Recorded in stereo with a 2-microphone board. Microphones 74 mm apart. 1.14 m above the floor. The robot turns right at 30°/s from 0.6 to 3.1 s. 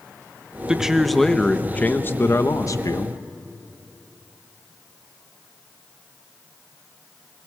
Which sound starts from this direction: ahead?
A man speaking, at 0.7 s.